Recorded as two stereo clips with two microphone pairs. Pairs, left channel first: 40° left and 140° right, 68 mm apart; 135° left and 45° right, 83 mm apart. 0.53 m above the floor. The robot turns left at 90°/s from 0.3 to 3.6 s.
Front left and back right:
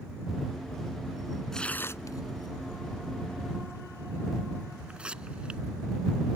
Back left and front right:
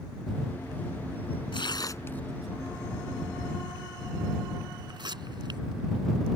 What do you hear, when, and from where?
1.5 s tearing paper: 120° left; by 5.6 s 65° right